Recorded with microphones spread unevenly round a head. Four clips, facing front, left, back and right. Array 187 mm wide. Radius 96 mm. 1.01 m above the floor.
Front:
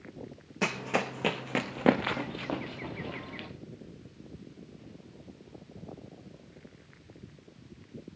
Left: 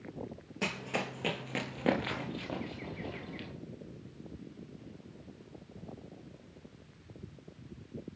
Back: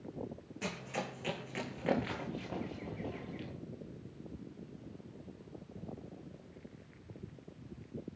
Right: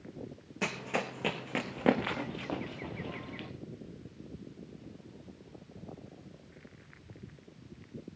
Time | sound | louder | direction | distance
0.6 | running footsteps | right 1 dB, front 10 dB | straight ahead | 3.5 m